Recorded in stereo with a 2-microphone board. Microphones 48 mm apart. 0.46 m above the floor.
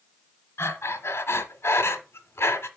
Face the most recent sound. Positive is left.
turn(degrees=70)  # may be behind; listen again after turning